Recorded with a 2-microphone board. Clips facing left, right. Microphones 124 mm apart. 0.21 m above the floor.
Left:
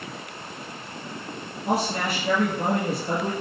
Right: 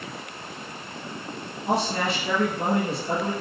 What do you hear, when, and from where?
1.6 s a man speaking: 50° left (ahead or behind), 2 m